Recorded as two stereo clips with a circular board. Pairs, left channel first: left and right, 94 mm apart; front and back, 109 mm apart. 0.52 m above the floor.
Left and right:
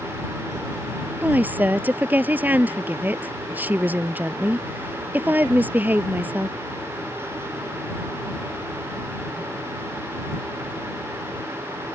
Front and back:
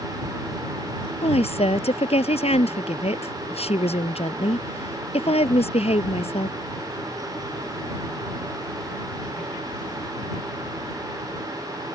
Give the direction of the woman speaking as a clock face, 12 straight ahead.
1 o'clock.